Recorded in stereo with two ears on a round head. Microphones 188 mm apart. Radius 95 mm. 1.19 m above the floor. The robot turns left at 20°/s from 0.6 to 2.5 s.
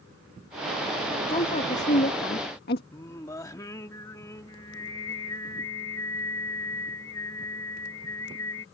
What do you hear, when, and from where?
1.3 s a woman speaking: 25° left (ahead or behind); by 2.8 s 50° left (ahead or behind)
2.9 s singing: 15° left (ahead or behind)